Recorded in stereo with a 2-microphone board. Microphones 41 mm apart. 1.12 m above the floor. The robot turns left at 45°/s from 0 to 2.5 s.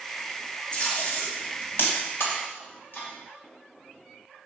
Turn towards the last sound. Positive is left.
turn(degrees=60)  # may be behind; listen again after turning